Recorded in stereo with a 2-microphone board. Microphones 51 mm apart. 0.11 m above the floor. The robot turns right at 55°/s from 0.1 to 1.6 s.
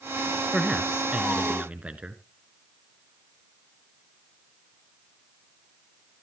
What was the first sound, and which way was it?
A man speaking, 5° right (ahead or behind).